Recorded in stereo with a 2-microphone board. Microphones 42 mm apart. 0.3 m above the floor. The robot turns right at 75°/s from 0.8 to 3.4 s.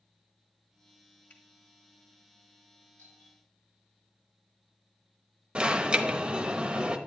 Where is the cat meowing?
I don't hear a cat meowing.